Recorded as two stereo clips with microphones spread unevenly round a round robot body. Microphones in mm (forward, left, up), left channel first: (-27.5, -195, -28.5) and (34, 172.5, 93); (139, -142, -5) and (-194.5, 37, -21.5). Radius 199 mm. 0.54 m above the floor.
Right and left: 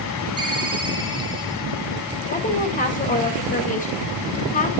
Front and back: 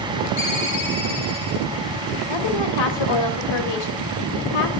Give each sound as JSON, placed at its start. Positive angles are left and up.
{"t": 0.4, "sound": "a ringtone", "azimuth_deg": 0, "distance_m": 5.5}
{"t": 2.3, "sound": "a woman speaking", "azimuth_deg": -40, "distance_m": 3.0}